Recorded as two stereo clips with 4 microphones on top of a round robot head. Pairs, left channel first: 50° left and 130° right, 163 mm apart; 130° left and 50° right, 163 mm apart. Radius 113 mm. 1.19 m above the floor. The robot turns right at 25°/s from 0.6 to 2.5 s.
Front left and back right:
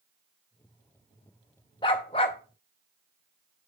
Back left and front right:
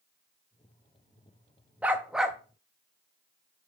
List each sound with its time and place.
1.8 s a dog barking: 20° left, 0.5 m; by 2.4 s 35° left, 0.5 m